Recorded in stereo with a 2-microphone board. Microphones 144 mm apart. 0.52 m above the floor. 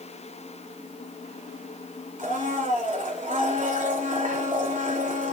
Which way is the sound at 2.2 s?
65° right (ahead or behind).